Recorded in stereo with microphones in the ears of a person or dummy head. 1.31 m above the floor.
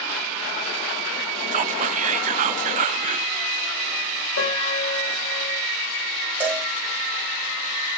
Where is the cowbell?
10° right (ahead or behind), 2.0 m.